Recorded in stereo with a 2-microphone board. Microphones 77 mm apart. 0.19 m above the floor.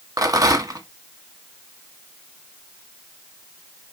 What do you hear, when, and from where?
0.2 s a rattle: 50° right (ahead or behind), 1.0 m